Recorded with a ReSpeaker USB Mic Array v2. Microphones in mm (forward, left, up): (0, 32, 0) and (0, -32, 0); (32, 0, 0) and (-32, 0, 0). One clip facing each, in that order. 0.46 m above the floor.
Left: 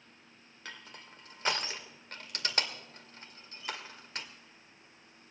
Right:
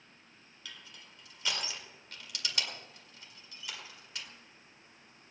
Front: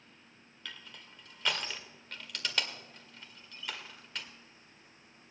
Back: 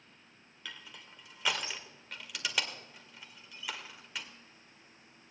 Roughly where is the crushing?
Left.